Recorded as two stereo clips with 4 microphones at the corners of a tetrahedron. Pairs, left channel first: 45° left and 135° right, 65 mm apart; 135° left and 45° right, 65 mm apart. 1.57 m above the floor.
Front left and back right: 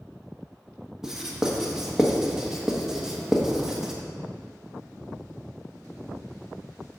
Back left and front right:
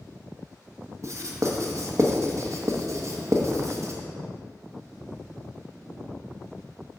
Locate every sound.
1.0 s writing: 55° right, 1.0 m